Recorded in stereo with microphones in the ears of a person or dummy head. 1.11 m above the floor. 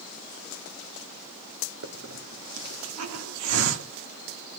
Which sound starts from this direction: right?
A hiss, at 1.8 s.